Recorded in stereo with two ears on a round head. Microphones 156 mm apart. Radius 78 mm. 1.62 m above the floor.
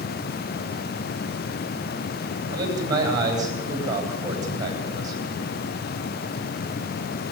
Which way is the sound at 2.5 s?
20° right (ahead or behind).